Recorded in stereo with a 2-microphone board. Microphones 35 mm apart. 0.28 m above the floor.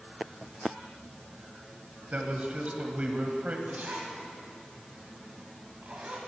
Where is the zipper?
45° right (ahead or behind), 2 m.